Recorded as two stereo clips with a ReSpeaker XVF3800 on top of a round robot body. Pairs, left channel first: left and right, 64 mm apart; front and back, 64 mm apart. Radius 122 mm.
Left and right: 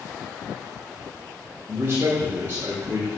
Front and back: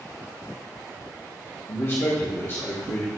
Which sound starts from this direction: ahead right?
A man speaking, at 1.7 s.